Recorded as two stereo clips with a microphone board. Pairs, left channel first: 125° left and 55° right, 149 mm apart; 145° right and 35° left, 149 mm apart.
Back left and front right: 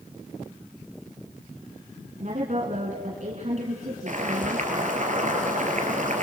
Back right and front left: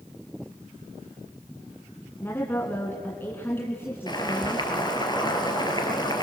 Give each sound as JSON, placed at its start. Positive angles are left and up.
{"t": 2.2, "sound": "a woman speaking", "azimuth_deg": -75, "distance_m": 1.9}
{"t": 4.1, "sound": "boiling", "azimuth_deg": -85, "distance_m": 3.5}